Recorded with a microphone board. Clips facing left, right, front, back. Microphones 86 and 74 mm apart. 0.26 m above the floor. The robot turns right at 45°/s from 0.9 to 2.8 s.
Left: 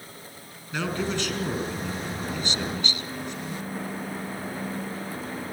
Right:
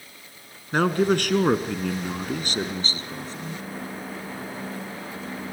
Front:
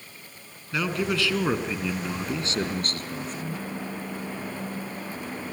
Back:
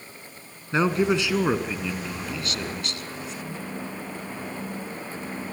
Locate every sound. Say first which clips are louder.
0.7 s a man speaking: right 8 dB, back 5 dB; 125° right, 2.5 m; by 3.6 s 40° right, 2.5 m